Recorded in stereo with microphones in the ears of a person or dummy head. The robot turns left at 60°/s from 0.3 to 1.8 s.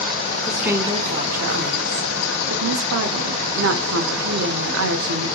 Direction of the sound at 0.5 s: Straight ahead.